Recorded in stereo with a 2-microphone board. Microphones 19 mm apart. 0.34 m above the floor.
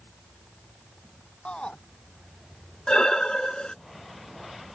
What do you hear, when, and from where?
1.4 s a shout: 55° left (ahead or behind)
2.9 s breathing: 50° left (ahead or behind)